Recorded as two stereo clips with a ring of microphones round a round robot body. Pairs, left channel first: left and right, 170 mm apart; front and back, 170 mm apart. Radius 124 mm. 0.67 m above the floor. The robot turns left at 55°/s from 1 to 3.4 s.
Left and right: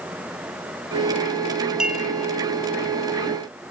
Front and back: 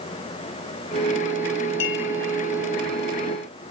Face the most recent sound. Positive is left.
turn(degrees=-90)